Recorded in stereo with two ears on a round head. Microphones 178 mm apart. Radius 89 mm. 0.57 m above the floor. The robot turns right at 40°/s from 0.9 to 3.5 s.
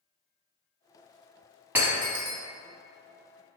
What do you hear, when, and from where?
1.8 s breaking glass: 10° right (ahead or behind), 0.8 m; by 2.4 s 35° right (ahead or behind), 0.8 m